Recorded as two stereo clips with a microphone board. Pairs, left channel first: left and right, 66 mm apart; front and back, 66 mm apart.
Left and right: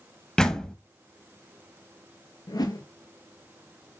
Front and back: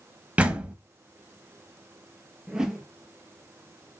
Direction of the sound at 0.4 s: 150° left.